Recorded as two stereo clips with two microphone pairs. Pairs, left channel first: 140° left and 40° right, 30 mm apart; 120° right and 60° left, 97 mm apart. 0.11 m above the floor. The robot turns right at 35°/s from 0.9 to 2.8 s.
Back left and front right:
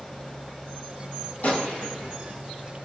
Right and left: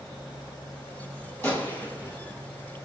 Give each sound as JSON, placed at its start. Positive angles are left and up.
{"t": 1.4, "sound": "a gunshot", "azimuth_deg": 170, "distance_m": 0.9}